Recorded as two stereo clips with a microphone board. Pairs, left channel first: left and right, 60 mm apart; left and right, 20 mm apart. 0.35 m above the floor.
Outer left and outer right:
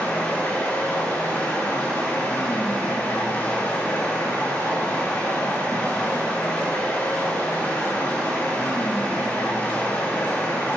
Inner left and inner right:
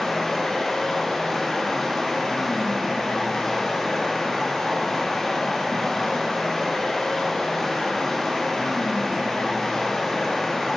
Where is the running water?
25° left (ahead or behind), 4.5 m.